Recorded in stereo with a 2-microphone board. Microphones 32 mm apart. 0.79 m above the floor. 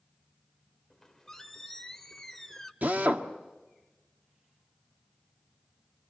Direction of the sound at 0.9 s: 10° left (ahead or behind).